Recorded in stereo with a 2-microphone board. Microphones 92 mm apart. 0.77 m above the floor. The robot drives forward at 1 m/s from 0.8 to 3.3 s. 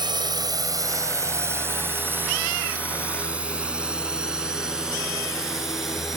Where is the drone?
55° right (ahead or behind); by 6.2 s centre (ahead or behind).